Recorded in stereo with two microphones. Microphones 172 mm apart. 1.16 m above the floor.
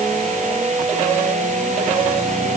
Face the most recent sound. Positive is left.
No sound to turn to.